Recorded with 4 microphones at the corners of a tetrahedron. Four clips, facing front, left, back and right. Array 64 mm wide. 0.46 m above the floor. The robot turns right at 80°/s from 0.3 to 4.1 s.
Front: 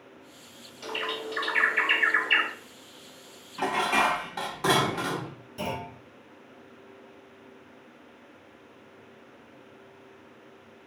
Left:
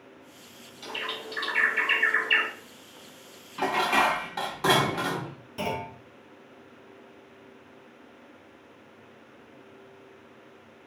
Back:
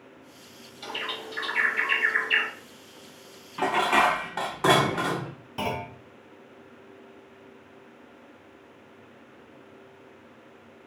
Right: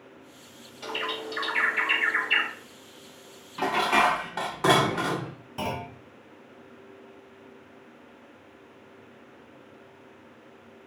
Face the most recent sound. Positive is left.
turn(degrees=-160)